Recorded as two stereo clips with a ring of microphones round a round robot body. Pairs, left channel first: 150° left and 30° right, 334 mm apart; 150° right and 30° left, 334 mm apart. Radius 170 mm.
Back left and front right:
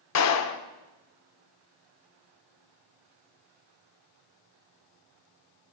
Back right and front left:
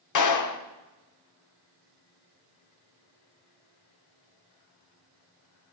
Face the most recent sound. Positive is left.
turn(degrees=-175)